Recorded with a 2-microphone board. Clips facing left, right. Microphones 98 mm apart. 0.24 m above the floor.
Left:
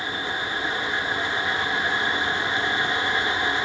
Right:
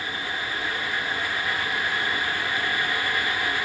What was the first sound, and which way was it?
Only background noise.